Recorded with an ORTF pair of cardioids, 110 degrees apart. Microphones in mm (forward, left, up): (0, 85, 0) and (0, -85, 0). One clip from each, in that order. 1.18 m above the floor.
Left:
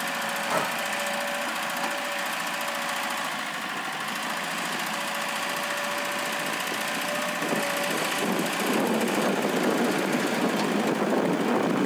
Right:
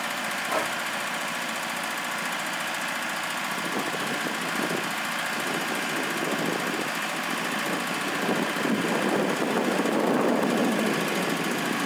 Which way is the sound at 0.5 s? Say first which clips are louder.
Left 1 dB; 25° left.